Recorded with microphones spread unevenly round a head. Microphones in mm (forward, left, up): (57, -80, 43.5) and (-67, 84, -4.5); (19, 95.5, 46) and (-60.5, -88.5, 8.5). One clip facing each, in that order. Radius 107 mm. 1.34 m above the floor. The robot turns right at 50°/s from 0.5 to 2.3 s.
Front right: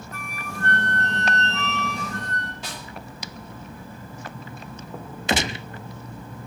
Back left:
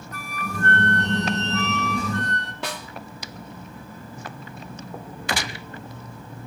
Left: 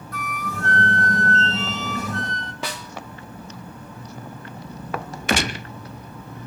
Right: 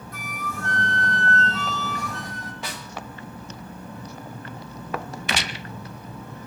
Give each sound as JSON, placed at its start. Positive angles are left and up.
{"t": 0.1, "sound": "a flute", "azimuth_deg": 70, "distance_m": 1.7}
{"t": 2.6, "sound": "a snare drum", "azimuth_deg": 90, "distance_m": 2.0}
{"t": 5.3, "sound": "a gunshot", "azimuth_deg": 20, "distance_m": 0.6}